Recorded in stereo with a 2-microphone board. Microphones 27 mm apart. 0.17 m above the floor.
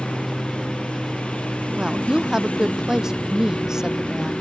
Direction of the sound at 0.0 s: 45° left (ahead or behind).